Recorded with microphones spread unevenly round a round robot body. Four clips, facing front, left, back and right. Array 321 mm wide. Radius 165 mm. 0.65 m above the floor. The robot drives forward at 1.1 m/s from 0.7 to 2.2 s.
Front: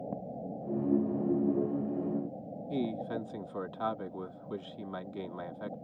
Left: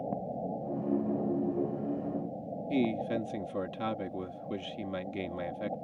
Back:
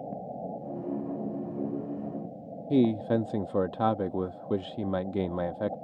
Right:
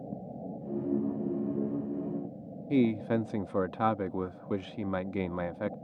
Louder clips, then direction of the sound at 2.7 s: Right 4 dB, back 10 dB; 160° right.